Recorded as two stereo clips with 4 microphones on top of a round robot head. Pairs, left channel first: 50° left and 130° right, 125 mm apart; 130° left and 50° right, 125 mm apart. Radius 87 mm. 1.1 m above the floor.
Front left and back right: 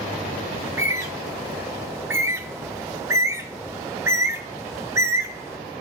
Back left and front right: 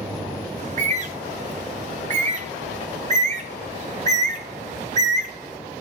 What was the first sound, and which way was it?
A bird, 60° right.